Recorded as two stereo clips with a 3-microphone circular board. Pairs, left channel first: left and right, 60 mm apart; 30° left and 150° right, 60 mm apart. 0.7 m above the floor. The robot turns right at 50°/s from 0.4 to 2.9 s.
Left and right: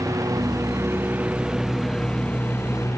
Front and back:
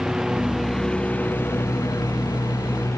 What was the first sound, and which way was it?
A lawn mower, 70° right.